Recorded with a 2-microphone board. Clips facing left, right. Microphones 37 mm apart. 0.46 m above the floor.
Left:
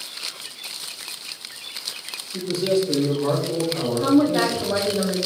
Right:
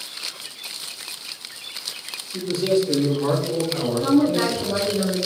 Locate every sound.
2.3 s a man speaking: 5° right (ahead or behind), 1.4 m; by 5.0 s 60° right (ahead or behind), 2 m
4.0 s a woman speaking: 65° left (ahead or behind), 2.0 m